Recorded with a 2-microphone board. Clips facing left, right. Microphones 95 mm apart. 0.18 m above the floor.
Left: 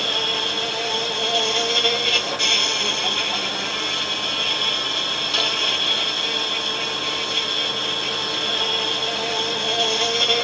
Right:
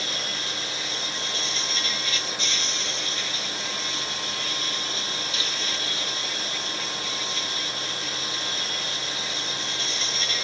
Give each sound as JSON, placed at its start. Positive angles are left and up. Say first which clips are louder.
{"t": 0.0, "sound": "an insect", "louder": "left 8 dB", "side_deg": 65}